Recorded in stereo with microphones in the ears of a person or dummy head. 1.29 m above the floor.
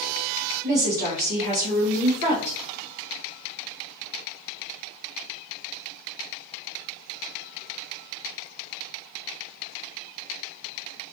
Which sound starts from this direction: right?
A woman speaking, at 0.6 s.